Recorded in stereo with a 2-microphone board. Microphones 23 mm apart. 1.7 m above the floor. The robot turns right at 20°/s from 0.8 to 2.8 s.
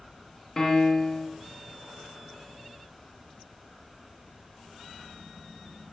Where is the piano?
25° left (ahead or behind), 1.3 m; by 1.3 s 30° left (ahead or behind), 1.3 m.